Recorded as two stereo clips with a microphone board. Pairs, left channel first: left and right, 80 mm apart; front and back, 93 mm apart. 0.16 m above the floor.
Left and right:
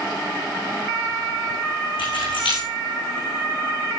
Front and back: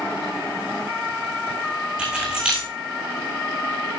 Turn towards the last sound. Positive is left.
turn(degrees=100)